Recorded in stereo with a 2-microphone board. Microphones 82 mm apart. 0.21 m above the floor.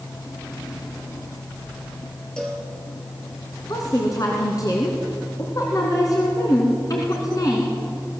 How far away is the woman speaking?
About 2.5 m.